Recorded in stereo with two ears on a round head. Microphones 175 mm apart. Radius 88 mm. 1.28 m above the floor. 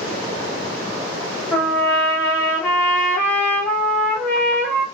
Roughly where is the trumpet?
Centre.